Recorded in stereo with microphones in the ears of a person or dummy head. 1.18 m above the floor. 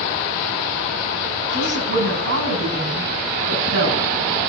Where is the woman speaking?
75° right (ahead or behind), 8.5 m.